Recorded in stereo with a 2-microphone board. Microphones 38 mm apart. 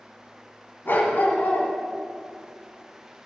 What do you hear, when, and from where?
0.8 s a dog barking: 70° left (ahead or behind), 1.0 m